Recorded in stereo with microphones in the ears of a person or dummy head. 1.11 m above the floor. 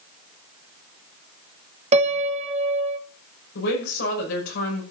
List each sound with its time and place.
1.9 s a piano: 35° right (ahead or behind), 1.1 m
3.5 s a woman speaking: 60° left (ahead or behind), 6 m